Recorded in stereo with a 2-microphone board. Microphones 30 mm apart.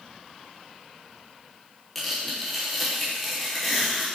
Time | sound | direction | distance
1.9 | tearing paper | centre (ahead or behind) | 4.5 m